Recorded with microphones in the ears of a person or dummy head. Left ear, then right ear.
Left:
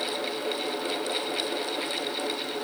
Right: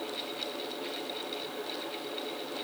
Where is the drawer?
No drawer in this recording.